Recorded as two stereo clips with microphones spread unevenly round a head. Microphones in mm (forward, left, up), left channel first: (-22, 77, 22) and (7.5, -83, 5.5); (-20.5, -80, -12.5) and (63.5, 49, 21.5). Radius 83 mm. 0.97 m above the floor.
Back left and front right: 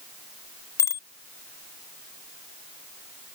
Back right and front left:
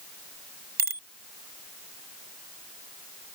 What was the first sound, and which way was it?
A bicycle bell, 30° left.